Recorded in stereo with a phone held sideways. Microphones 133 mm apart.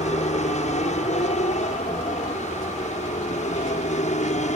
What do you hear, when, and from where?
0.0 s an aircraft: 60° left (ahead or behind)